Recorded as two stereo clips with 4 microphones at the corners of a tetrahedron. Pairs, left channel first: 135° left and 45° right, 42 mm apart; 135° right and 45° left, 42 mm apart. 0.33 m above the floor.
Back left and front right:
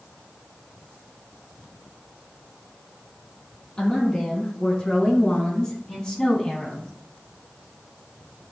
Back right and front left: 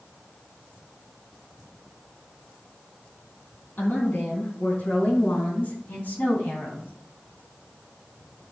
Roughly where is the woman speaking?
Behind right.